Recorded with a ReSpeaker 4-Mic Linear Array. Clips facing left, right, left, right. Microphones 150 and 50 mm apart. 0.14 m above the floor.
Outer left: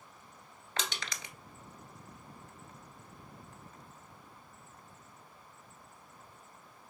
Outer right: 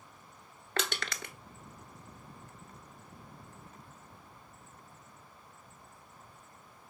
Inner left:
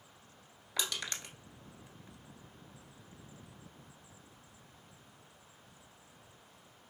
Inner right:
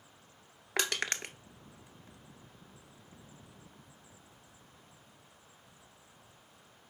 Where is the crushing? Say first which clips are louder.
Outer right 4 dB, inner right 5 dB; 60° right (ahead or behind), 0.7 m.